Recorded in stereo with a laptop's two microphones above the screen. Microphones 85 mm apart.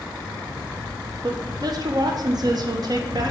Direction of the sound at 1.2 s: 50° right (ahead or behind).